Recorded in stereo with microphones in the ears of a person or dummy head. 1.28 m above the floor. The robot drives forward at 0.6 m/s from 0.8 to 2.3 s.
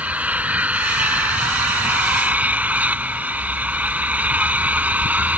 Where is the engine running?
5° right (ahead or behind); by 5.4 s 10° right (ahead or behind).